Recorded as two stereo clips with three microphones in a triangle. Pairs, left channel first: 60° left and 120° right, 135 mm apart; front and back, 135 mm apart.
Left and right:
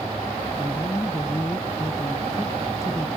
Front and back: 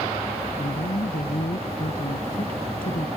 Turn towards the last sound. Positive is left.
turn(degrees=-10)